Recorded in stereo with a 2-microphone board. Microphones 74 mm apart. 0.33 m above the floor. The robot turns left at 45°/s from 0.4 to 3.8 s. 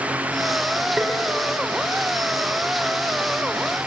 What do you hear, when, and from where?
1.0 s tapping: 5° right (ahead or behind), 3.5 m; by 1.1 s 10° right (ahead or behind), 3.5 m